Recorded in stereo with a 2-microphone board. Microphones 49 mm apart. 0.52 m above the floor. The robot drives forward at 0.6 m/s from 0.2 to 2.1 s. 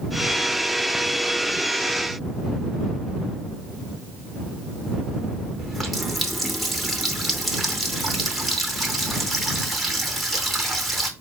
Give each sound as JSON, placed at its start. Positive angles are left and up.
{"t": 5.6, "sound": "a running tap", "side_deg": 0, "distance_m": 0.7}